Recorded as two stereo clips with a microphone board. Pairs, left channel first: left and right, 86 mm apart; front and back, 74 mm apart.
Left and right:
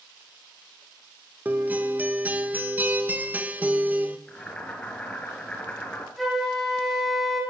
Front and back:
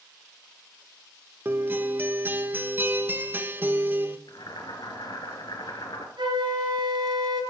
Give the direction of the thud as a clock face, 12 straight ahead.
I don't hear a thud.